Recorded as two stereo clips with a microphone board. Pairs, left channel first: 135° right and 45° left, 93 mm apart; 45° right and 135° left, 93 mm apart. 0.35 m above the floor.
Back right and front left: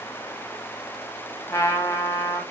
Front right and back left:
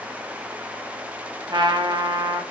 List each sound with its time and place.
1.5 s a trumpet: 170° left, 0.8 m